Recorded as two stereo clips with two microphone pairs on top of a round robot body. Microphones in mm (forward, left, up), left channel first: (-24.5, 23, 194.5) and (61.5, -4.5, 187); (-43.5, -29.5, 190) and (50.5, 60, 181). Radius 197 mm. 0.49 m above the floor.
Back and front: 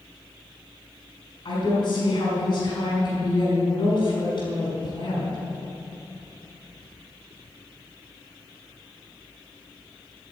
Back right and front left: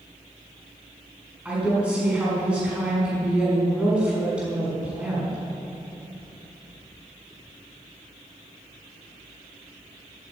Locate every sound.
1.4 s a woman speaking: 125° left, 5.5 m